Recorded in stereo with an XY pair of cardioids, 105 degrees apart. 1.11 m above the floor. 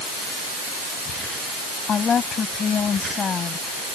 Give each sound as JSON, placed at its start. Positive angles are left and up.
{"t": 1.9, "sound": "a woman speaking", "azimuth_deg": 45}